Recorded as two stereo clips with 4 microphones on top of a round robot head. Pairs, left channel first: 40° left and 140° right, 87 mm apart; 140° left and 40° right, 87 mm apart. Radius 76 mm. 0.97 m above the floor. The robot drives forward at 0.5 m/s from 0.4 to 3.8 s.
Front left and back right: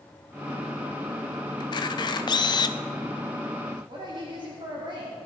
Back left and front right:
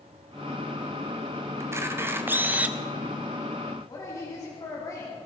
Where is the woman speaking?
170° right, 2.5 m.